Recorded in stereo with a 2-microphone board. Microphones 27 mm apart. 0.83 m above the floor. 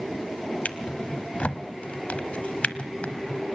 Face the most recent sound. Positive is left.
turn(degrees=60)  # may be behind; listen again after turning